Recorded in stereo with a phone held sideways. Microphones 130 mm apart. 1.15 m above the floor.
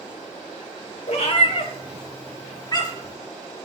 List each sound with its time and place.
1.1 s a cat meowing: 55° left (ahead or behind), 1.4 m; by 3.1 s 25° left (ahead or behind), 2.5 m